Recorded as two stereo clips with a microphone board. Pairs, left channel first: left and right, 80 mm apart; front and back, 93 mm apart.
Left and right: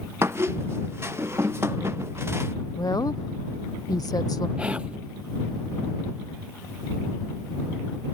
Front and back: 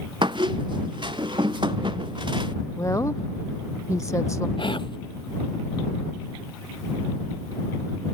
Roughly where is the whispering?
Ahead.